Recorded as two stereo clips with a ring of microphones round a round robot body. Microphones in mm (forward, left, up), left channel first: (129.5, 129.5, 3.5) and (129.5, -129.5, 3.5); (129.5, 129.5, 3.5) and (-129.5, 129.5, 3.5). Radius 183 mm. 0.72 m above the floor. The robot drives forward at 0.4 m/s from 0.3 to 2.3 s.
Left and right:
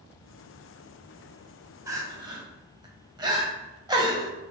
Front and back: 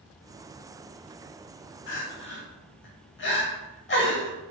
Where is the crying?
15° right, 0.8 m; by 4.3 s 20° right, 0.6 m.